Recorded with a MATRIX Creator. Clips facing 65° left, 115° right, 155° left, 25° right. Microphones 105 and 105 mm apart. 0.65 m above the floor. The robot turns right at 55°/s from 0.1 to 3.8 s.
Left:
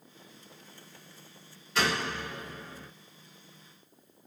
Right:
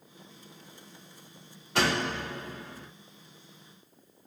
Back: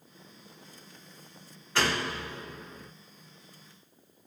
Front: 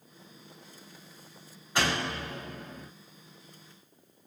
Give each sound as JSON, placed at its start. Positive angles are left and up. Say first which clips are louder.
{"t": 1.8, "sound": "a door slam", "louder": "right 2 dB, even", "azimuth_deg": -95, "distance_m": 1.8}